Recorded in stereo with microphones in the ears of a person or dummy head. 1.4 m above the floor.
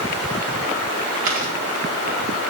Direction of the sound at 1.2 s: 50° right (ahead or behind).